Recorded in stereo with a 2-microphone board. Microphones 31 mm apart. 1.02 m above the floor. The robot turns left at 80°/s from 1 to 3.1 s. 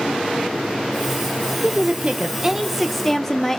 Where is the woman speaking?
85° right, 0.8 m; by 3.6 s 160° left, 0.8 m.